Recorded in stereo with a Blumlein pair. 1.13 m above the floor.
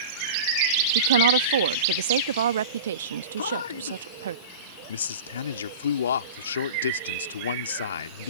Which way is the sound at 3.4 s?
65° left.